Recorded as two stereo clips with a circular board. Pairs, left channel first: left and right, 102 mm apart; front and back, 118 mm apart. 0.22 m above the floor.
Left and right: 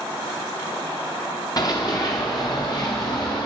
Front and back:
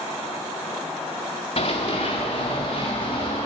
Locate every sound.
1.6 s running footsteps: 40° left, 1.7 m; by 3.5 s 45° left, 3 m